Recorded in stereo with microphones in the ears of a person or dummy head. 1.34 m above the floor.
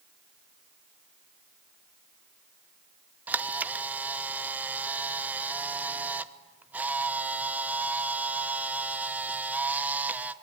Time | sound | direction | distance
3.3 | a camera shutter | 10° right (ahead or behind) | 1.0 m